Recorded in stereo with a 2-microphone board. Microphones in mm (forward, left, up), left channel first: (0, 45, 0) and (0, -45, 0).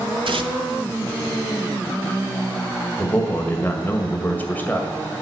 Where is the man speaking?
20° left (ahead or behind), 1.8 m.